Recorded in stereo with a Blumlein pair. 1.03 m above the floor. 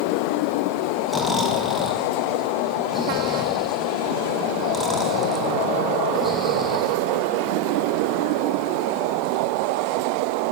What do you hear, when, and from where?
1.1 s snoring: 5° left, 0.7 m